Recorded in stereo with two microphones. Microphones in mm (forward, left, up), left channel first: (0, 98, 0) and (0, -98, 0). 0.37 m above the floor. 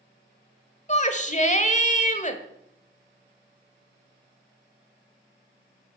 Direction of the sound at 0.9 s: 40° left (ahead or behind).